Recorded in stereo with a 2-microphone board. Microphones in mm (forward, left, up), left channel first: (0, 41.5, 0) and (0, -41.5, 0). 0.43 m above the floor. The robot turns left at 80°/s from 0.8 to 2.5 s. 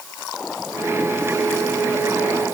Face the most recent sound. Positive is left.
No sound to turn to.